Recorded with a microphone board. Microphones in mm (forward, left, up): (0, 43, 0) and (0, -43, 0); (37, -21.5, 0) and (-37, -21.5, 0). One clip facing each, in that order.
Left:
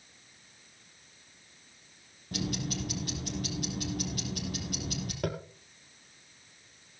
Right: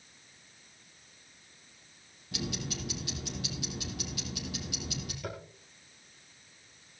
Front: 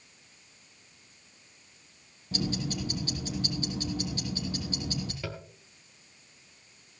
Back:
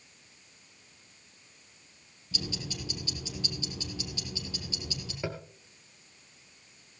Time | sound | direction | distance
2.3 | ticking | 45° left | 5 m
5.2 | tapping | 115° left | 1.8 m